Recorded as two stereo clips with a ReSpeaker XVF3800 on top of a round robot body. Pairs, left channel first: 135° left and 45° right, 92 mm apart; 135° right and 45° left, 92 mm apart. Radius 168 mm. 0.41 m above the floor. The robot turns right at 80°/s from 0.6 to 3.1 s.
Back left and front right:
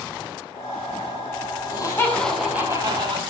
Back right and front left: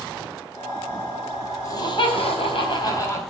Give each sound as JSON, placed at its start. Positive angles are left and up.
{"t": 1.6, "sound": "laughter", "azimuth_deg": 170, "distance_m": 4.5}